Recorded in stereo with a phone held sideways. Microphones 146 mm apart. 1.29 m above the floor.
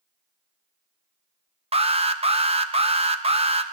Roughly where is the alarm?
Right.